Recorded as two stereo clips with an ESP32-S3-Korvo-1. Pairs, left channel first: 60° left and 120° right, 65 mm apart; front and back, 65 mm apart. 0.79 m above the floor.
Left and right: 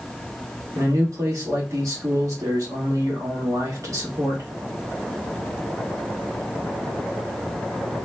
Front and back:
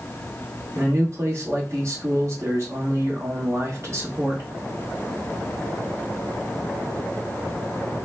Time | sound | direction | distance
0.8 | a man speaking | 145° right | 1.3 m